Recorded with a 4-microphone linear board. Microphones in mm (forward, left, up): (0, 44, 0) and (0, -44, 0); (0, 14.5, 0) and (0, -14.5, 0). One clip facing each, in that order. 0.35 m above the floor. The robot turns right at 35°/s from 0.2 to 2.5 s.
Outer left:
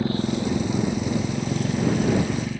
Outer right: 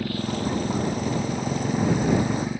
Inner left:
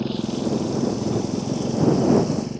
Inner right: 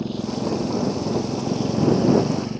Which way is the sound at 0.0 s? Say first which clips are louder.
Outer left 3 dB, inner left 1 dB; 25° left (ahead or behind).